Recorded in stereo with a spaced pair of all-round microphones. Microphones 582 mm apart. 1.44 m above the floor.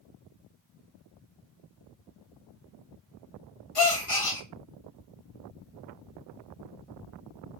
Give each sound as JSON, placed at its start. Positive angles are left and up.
{"t": 3.8, "sound": "a gasp", "side_deg": 45, "distance_m": 1.6}